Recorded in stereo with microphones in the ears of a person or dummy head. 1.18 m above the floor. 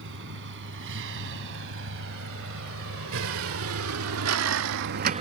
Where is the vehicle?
70° right (ahead or behind); by 5.2 s 30° right (ahead or behind).